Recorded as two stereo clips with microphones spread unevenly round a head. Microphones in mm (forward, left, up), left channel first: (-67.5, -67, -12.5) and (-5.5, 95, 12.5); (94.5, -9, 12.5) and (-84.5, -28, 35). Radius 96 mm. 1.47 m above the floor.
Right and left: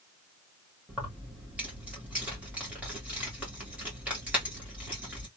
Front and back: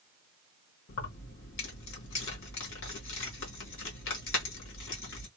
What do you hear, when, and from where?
0.9 s keys jangling: 10° right, 1.3 m